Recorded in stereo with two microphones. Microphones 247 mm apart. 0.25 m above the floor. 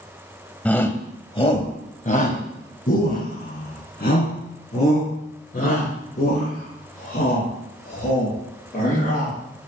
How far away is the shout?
About 1.3 m.